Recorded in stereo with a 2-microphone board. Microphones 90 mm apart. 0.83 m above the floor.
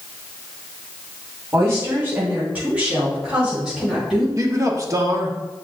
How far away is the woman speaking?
About 3 m.